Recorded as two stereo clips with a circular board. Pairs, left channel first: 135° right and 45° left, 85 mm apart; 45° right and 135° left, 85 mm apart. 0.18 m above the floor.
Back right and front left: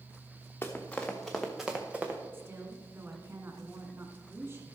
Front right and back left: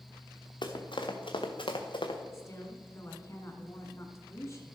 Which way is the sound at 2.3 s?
5° right.